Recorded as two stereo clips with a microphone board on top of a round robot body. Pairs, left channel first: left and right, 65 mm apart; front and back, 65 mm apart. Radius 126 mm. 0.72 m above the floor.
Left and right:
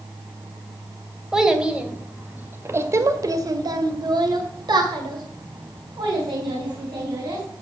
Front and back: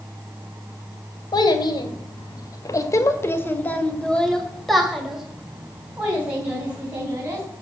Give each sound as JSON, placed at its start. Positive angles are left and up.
{"t": 1.3, "sound": "a child speaking", "azimuth_deg": -10, "distance_m": 2.5}